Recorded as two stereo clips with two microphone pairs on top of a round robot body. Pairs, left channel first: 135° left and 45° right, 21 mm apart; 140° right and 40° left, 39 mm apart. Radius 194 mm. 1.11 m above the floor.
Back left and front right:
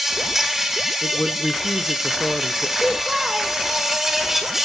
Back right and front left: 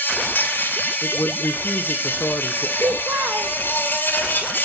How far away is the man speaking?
About 1.1 m.